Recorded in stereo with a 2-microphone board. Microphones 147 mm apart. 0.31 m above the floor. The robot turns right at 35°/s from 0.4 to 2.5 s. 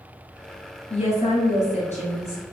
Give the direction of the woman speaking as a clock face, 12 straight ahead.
10 o'clock.